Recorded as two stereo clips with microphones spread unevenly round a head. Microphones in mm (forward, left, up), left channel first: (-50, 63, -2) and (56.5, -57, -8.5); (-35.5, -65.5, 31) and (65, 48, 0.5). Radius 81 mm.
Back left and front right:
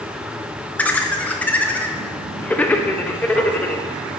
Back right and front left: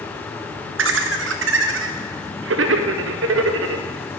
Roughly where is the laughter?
Ahead left.